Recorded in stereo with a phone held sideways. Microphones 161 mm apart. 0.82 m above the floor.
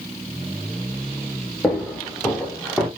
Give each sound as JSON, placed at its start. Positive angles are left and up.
{"t": 1.6, "sound": "footsteps", "side_deg": 10, "distance_m": 4.5}